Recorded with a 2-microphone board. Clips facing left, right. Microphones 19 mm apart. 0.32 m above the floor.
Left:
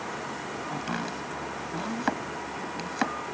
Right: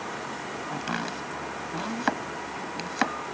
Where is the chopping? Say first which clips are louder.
Right 2 dB; 15° right (ahead or behind).